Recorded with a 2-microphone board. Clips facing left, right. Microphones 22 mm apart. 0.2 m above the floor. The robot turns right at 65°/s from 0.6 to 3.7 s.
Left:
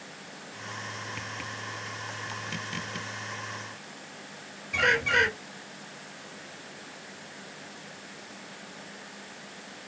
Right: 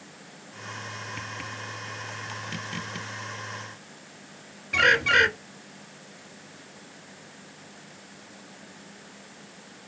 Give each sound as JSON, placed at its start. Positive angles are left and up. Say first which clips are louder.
{"t": 4.7, "sound": "a bird", "louder": "right 4 dB", "side_deg": -30, "distance_m": 0.6}